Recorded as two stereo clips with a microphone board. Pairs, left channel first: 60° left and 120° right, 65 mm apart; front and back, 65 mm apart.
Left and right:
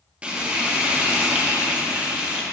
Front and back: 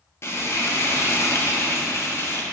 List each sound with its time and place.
0.2 s frying: 45° right, 1.1 m